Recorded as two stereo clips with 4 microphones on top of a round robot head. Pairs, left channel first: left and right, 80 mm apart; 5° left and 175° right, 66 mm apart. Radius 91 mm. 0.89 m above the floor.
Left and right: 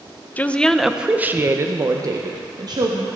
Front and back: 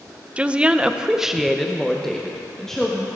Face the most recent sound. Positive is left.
turn(degrees=-75)